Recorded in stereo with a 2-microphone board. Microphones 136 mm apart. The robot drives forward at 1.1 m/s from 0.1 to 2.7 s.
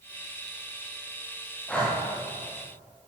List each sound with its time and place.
1.7 s breathing: 10° left (ahead or behind), 10 m